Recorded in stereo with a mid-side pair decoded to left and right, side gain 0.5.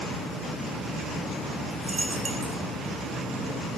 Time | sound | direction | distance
1.7 | a dropped coin | 20° right | 5 m